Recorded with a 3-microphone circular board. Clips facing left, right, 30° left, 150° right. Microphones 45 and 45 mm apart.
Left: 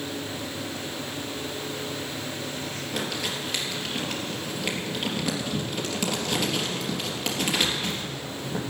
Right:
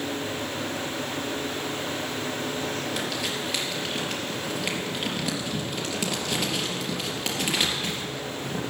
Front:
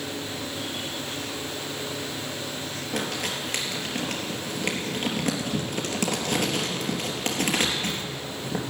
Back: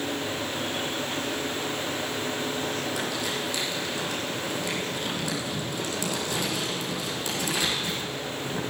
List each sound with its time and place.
2.9 s crumpling: 5° right, 3.5 m